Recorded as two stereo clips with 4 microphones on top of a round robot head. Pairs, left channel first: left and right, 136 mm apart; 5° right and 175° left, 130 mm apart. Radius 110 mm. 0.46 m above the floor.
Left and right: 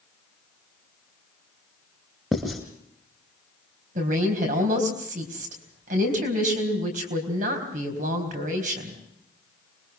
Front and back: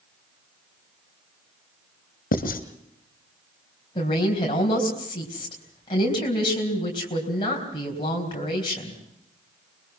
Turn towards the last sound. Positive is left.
turn(degrees=-65)